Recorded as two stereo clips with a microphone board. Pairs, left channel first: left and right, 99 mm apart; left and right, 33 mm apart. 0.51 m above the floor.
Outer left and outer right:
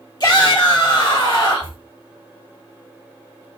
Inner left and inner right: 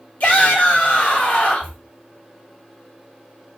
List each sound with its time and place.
0.2 s a shout: 45° left (ahead or behind), 1.4 m